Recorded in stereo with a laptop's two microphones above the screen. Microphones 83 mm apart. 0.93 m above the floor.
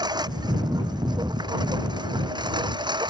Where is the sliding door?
I don't hear a sliding door.